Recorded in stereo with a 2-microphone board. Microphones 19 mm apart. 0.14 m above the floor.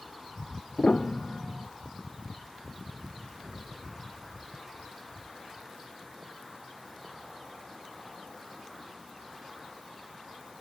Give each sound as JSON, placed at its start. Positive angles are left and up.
{"t": 0.8, "sound": "a piano", "side_deg": 60}
{"t": 3.4, "sound": "an explosion", "side_deg": -80}